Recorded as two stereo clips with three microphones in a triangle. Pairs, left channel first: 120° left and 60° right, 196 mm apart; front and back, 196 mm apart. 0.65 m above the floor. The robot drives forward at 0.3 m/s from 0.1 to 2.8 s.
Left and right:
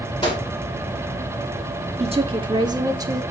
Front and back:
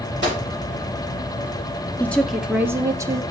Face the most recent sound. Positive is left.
turn(degrees=-115)